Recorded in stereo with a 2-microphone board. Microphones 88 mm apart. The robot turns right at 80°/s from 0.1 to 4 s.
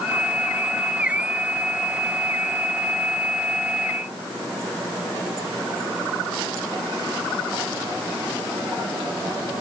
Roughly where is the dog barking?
No dog barking in this recording.